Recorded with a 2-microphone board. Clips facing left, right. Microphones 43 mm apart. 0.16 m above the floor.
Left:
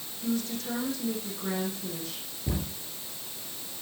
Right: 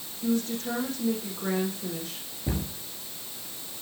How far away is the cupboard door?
About 8.5 m.